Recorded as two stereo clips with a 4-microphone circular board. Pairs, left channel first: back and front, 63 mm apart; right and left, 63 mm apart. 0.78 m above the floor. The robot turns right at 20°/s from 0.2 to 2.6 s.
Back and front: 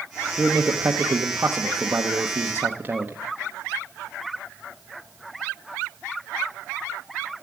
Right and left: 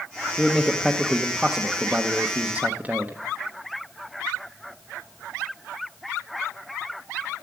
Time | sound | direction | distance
0.4 | a man speaking | 5° right | 1.0 m